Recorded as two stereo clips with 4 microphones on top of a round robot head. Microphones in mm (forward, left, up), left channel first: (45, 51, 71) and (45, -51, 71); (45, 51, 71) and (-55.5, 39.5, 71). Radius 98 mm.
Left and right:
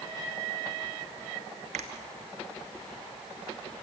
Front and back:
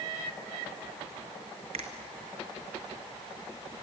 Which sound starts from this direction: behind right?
A finger snap, at 1.7 s.